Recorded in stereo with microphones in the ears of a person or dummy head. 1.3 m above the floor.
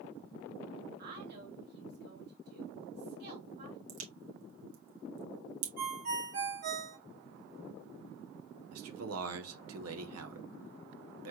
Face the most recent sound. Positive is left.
turn(degrees=-85)